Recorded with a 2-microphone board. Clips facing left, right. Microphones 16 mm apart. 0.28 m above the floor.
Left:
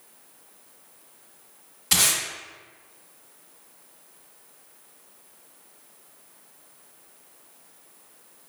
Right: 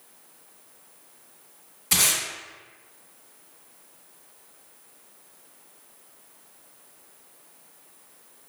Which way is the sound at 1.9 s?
30° left (ahead or behind).